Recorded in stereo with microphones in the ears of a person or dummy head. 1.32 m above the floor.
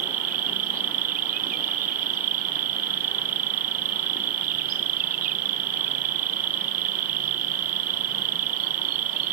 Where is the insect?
45° right (ahead or behind).